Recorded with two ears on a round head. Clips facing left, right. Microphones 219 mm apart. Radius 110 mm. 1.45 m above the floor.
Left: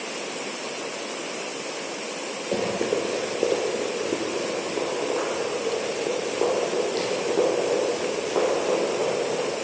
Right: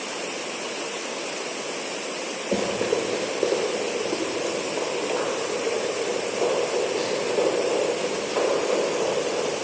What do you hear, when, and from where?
2.5 s running footsteps: 15° right (ahead or behind), 1.5 m; by 9.4 s 70° left (ahead or behind), 5 m